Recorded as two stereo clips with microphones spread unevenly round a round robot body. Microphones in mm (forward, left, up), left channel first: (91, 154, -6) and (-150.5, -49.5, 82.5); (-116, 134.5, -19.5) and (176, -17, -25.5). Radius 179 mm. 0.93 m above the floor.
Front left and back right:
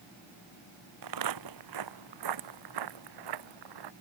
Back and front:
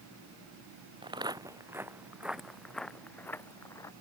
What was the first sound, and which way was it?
Footsteps, 105° right.